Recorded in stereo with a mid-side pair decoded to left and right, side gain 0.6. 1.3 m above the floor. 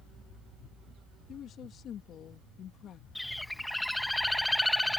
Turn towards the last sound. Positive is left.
turn(degrees=5)